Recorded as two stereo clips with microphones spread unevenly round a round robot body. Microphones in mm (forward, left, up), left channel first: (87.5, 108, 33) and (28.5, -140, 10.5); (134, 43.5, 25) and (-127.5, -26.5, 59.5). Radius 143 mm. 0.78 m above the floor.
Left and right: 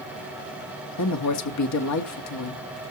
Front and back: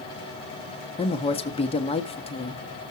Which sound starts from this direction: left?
A woman speaking, at 1.0 s.